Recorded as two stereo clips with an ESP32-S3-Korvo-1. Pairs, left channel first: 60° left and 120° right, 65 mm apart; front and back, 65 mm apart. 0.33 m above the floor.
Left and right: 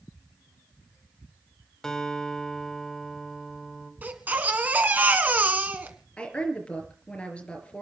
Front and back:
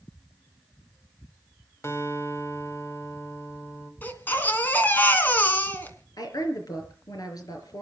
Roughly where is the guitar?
Ahead.